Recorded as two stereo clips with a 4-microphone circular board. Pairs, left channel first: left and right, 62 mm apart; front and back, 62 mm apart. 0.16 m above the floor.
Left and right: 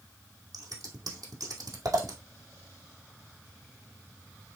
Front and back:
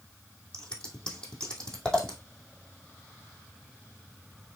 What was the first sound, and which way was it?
Scissors, 75° right.